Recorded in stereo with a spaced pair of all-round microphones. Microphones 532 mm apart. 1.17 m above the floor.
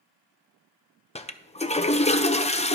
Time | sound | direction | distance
1.1 | a toilet flushing | 15° left (ahead or behind) | 0.5 m